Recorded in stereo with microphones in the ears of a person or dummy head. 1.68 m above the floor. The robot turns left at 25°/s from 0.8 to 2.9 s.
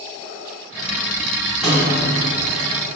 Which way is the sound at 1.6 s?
10° right (ahead or behind).